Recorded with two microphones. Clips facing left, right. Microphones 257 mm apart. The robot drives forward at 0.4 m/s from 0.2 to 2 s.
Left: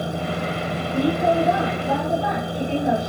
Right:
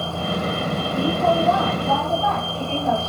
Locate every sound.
0.0 s a vehicle: 15° left (ahead or behind)